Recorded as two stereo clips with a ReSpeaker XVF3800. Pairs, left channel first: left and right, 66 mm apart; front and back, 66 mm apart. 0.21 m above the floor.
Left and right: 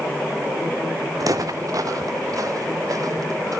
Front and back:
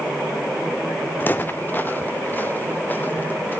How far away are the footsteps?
About 0.6 m.